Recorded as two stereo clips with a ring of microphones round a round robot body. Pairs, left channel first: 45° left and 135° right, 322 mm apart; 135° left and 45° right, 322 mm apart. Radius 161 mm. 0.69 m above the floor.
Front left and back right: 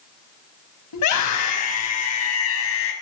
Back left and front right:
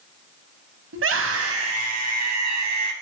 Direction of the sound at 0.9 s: 10° left.